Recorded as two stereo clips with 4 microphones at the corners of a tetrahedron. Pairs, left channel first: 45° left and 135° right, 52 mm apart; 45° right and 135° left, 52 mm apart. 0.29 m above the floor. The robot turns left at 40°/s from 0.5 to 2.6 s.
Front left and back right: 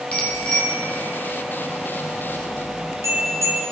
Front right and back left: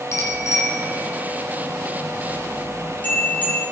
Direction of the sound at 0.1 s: 20° right.